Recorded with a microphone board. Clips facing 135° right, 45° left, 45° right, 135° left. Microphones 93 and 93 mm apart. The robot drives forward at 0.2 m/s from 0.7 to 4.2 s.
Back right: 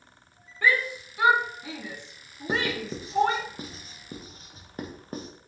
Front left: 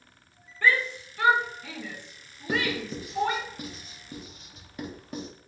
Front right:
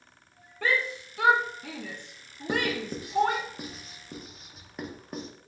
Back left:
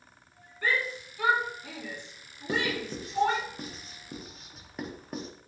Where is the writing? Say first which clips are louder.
Even, front right 2 dB; 90° right, 0.8 m; by 5.3 s 130° right, 0.8 m.